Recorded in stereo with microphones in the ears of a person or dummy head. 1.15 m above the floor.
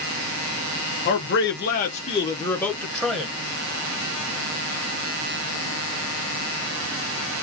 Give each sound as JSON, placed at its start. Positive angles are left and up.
{"t": 1.1, "sound": "a man speaking", "side_deg": 50, "distance_m": 0.8}